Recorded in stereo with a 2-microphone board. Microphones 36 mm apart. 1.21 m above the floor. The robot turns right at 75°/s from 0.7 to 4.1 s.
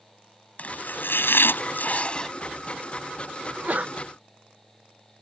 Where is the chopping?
45° left; by 2.3 s 160° left.